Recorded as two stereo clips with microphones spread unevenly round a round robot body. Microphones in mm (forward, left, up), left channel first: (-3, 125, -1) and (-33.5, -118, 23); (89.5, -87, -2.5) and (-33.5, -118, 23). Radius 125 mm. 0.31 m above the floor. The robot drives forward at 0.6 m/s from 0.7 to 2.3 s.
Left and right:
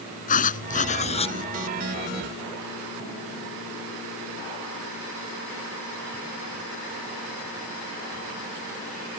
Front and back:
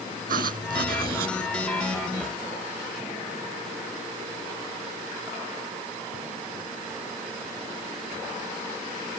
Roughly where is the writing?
Behind left.